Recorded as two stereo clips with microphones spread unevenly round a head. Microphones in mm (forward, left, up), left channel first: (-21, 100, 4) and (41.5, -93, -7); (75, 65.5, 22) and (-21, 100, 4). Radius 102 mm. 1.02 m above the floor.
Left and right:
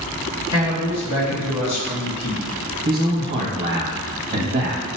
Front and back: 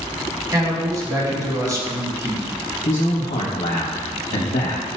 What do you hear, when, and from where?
0.5 s a man speaking: 105° left, 1.5 m
2.9 s a man speaking: 20° right, 0.8 m